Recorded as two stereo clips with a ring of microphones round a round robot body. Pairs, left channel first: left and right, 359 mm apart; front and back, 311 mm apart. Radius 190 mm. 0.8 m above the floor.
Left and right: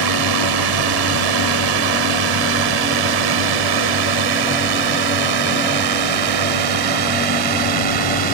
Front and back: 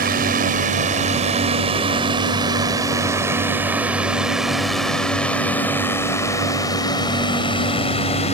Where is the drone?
115° right; by 8.3 s 75° right.